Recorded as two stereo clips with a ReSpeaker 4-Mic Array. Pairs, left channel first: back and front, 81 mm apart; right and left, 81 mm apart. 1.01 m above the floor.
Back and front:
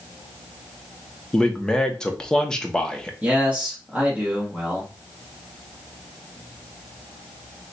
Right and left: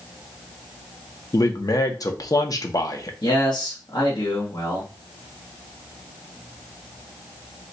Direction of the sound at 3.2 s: 70° right.